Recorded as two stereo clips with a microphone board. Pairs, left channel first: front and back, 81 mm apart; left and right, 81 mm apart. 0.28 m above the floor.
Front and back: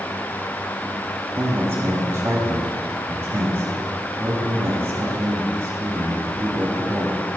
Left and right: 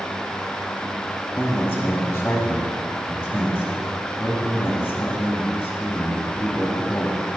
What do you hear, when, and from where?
1.4 s a man speaking: 140° left, 2 m